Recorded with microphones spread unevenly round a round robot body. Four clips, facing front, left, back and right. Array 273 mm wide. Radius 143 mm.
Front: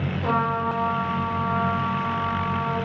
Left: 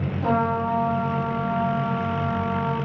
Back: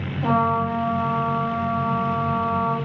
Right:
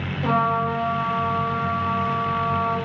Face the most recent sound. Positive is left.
turn(degrees=140)